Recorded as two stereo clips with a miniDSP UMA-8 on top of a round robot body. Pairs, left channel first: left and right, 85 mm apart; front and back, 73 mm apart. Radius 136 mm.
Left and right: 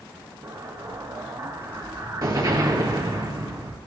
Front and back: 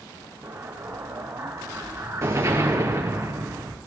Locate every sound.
0.4 s an explosion: 135° right, 3.5 m